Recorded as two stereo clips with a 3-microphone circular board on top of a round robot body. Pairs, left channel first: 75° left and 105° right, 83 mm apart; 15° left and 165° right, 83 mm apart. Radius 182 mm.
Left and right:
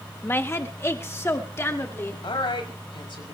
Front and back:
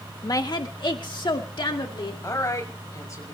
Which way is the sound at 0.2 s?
25° left.